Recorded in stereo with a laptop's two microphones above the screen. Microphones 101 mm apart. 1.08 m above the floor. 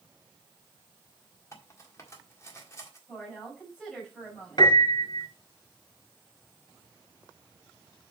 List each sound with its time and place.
1.5 s cutlery clinking: 30° left (ahead or behind), 1.6 m
3.1 s a woman speaking: 10° left (ahead or behind), 5 m
4.6 s a piano: 50° left (ahead or behind), 2.5 m